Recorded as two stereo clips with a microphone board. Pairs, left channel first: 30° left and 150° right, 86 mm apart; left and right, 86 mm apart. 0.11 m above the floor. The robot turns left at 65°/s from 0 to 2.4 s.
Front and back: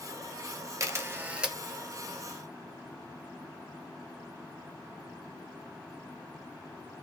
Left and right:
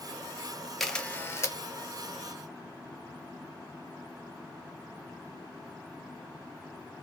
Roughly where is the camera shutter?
Behind.